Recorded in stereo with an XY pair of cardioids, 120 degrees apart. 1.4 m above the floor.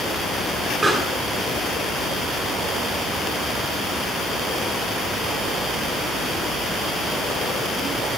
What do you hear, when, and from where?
0.8 s a pop: 5° right, 6 m